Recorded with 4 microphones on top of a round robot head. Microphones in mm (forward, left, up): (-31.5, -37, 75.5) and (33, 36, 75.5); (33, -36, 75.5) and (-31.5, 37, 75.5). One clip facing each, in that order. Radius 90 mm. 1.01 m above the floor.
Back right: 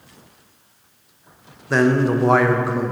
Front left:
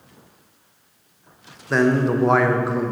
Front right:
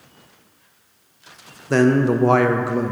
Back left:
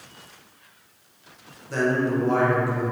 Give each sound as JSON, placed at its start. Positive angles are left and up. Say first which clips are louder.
{"t": 1.7, "sound": "a man speaking", "louder": "back right 1 dB, front right 7 dB", "azimuth_deg": -40, "distance_m": 0.8}